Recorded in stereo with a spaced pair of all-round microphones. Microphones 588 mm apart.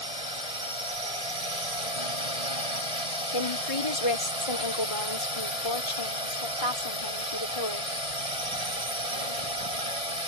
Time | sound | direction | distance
0.0 | a drone | 75° right (ahead or behind) | ?
3.3 | a woman speaking | 60° left (ahead or behind) | ?